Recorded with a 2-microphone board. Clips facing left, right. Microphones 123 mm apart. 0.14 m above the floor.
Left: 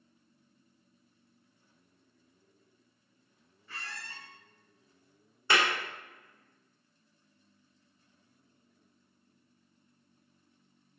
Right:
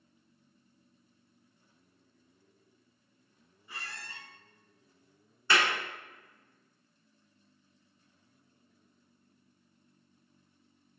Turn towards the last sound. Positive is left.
turn(degrees=20)  # may be behind; listen again after turning